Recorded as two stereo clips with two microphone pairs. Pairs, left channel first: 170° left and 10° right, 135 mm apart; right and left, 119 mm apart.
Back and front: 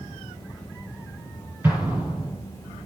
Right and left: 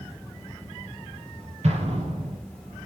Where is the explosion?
65° left, 7.5 m.